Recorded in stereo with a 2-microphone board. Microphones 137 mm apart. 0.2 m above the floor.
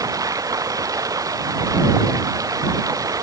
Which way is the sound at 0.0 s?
25° right (ahead or behind).